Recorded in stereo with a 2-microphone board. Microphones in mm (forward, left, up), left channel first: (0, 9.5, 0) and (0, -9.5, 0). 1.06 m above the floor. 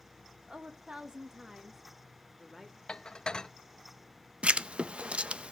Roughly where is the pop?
No pop in this recording.